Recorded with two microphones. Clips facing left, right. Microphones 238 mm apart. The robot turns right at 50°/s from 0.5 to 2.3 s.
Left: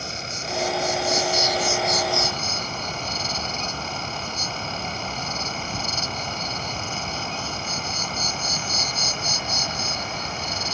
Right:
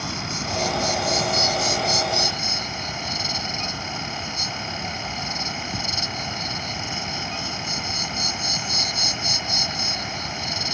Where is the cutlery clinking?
No cutlery clinking in this recording.